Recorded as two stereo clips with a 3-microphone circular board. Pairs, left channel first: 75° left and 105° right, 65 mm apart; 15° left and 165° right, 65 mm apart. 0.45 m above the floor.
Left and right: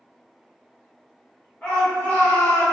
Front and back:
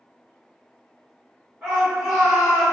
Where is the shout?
135° left, 1.6 m; by 2.7 s 95° left, 1.5 m.